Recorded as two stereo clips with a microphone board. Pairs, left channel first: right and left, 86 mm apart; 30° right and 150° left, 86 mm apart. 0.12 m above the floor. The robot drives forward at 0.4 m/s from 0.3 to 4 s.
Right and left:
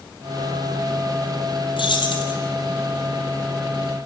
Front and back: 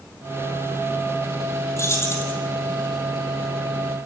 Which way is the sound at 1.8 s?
85° right.